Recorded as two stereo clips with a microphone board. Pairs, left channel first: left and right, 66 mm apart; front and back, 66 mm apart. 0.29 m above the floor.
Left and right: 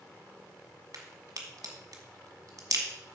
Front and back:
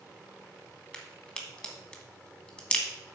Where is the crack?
75° right, 1.5 m.